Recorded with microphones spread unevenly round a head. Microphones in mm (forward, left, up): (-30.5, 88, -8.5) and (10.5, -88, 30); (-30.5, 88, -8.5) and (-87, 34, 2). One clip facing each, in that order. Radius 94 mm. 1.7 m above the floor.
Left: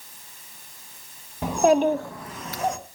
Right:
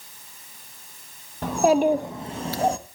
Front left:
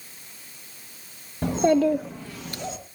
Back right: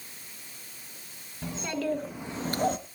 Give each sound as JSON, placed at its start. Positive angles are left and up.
{"t": 1.4, "sound": "a child speaking", "azimuth_deg": 5, "distance_m": 1.3}